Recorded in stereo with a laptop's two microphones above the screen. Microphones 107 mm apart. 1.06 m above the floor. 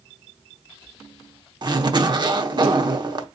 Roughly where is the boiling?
No boiling in this recording.